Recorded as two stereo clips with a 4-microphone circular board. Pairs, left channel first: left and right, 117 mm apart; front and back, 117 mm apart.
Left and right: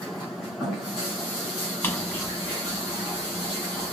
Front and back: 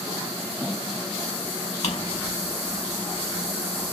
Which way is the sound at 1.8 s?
20° left.